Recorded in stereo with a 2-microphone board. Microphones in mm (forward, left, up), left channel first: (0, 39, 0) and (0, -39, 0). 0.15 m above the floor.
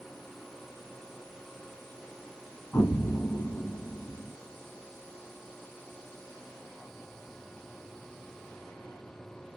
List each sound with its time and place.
2.7 s an explosion: 30° left (ahead or behind), 4 m